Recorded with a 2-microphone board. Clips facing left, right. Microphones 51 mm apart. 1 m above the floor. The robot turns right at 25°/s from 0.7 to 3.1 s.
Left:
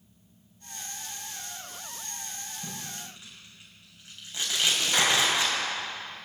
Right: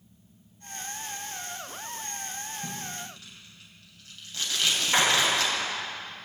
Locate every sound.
2.6 s tape being pulled: 10° left (ahead or behind), 6.5 m; by 5.5 s 20° left (ahead or behind), 6.5 m
4.9 s a clap: 20° right (ahead or behind), 5.5 m